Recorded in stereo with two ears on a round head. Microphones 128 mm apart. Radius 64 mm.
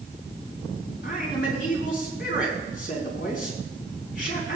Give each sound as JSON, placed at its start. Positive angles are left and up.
{"t": 1.0, "sound": "a man speaking", "side_deg": 65, "distance_m": 4.0}